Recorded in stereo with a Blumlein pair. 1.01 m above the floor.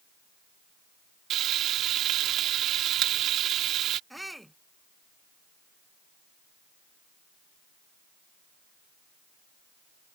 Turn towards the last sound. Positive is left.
turn(degrees=0)